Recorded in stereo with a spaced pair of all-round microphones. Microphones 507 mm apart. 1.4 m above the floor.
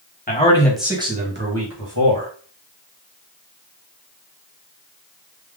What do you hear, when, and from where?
0.3 s a man speaking: 15° left (ahead or behind), 1.3 m; by 2.3 s 45° right (ahead or behind), 1.5 m